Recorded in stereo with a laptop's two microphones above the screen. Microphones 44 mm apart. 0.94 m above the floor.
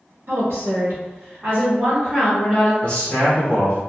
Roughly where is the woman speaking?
Right.